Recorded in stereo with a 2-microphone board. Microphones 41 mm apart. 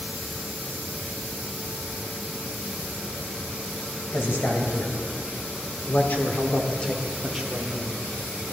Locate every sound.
4.1 s a man speaking: 70° left (ahead or behind), 3 m; by 8.0 s 20° right (ahead or behind), 1.5 m